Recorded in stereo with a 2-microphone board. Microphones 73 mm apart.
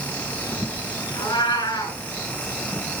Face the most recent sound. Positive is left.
turn(degrees=80)